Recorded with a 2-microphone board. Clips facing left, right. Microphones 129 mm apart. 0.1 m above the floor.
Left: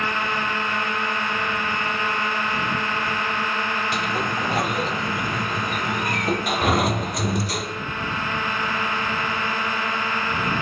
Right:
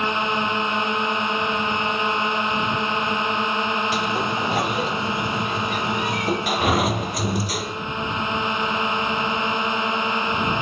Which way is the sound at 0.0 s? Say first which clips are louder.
Right 3 dB; 20° right (ahead or behind).